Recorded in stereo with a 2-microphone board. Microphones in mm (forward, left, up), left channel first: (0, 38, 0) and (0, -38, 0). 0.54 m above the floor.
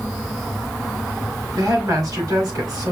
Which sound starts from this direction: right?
A woman speaking, at 1.6 s.